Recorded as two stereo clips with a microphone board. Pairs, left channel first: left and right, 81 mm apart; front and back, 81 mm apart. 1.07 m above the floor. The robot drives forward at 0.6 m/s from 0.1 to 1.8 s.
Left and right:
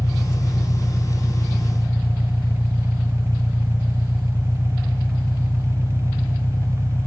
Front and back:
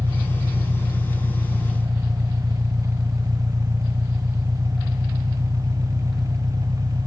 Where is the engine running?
150° left; by 7.1 s 155° left.